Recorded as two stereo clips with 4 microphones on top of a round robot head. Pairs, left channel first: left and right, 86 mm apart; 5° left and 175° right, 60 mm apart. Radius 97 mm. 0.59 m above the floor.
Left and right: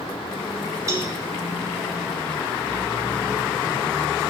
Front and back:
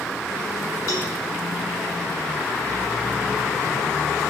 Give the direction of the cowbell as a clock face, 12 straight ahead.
1 o'clock.